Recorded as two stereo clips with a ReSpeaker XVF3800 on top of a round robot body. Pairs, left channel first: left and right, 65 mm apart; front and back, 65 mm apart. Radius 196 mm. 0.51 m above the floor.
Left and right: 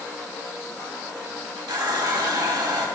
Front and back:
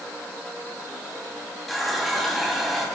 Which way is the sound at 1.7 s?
90° right.